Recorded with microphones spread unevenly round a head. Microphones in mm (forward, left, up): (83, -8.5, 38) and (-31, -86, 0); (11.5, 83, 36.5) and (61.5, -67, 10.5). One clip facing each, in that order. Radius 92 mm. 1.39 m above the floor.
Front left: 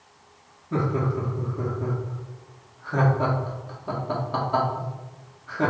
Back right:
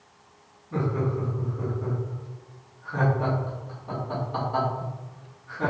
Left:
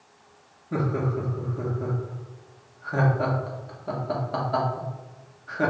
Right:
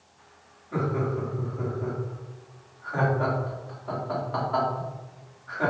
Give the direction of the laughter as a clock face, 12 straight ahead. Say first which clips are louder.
Front left 2 dB, left 1 dB; 10 o'clock.